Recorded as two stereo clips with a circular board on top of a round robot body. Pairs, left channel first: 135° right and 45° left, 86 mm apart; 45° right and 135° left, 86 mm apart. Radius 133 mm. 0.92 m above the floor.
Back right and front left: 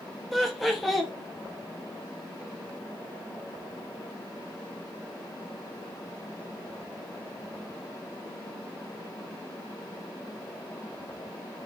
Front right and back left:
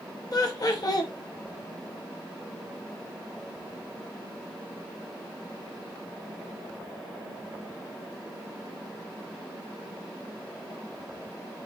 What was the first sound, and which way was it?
Laughter, 45° right.